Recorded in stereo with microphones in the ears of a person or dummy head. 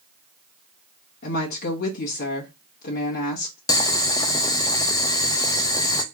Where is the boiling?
25° left (ahead or behind), 0.6 m.